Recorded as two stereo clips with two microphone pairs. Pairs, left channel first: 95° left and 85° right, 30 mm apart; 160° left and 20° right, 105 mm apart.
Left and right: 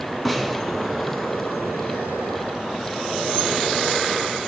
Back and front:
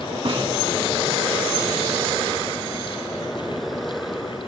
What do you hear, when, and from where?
0.2 s a snare drum: 10° left, 2.5 m